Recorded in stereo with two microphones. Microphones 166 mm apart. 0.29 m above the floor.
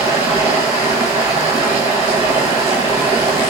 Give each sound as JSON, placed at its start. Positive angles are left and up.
{"t": 0.0, "sound": "running water", "side_deg": -15, "distance_m": 2.0}